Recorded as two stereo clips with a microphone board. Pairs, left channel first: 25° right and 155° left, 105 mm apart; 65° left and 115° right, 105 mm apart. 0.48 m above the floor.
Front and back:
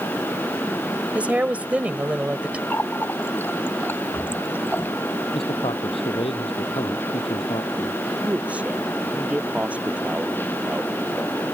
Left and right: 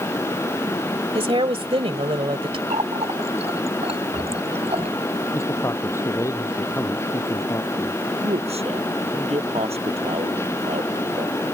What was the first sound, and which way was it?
A woman speaking, 125° right.